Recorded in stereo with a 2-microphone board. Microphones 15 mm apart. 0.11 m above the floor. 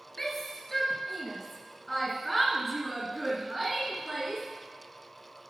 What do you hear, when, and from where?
0.2 s a shout: 20° left (ahead or behind), 2.5 m; by 4.4 s 20° right (ahead or behind), 1.8 m